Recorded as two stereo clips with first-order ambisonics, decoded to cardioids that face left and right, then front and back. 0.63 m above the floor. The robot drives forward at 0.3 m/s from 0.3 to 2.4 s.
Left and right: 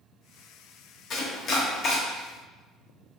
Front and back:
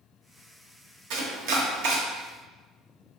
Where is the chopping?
145° left, 0.9 m; by 2.0 s 155° left, 1.2 m.